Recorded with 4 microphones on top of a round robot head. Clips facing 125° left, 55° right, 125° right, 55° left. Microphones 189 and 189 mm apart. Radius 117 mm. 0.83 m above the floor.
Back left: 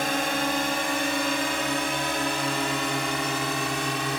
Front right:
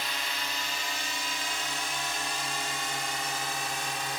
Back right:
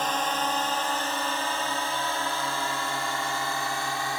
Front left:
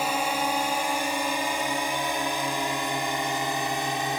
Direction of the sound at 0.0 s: 130° left.